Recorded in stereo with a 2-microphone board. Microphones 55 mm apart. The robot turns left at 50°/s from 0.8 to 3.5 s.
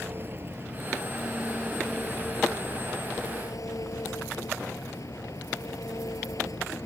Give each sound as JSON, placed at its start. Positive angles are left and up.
{"t": 0.0, "sound": "an engine running", "azimuth_deg": -140}